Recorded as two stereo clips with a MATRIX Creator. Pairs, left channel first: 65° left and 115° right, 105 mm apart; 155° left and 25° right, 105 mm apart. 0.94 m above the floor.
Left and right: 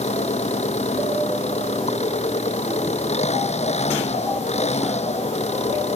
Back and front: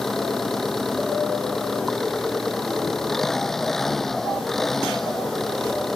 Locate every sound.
0.0 s an engine running: 70° left